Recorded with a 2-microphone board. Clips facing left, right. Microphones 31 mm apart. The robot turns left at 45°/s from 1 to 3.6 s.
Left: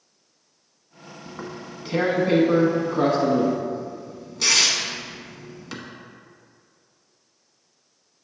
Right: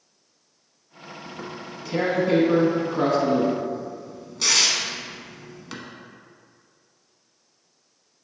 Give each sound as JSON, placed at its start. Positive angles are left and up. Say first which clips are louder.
{"t": 1.3, "sound": "tearing paper", "louder": "left 1 dB", "side_deg": 25, "distance_m": 1.0}